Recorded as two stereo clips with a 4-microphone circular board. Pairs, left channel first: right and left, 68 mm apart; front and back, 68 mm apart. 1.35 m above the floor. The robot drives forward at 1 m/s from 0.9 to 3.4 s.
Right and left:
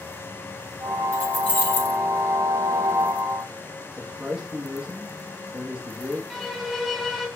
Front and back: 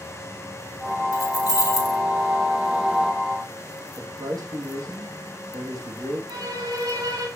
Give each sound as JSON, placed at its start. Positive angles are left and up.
{"t": 1.1, "sound": "keys jangling", "azimuth_deg": -25, "distance_m": 3.5}
{"t": 4.0, "sound": "a man speaking", "azimuth_deg": 170, "distance_m": 2.5}
{"t": 6.3, "sound": "a violin", "azimuth_deg": 180, "distance_m": 2.5}